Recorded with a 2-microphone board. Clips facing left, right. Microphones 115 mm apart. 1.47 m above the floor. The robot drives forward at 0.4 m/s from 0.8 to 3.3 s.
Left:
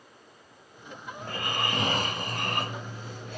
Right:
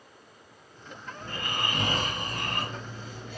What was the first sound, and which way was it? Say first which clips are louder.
Snoring: left 2 dB; 80° left.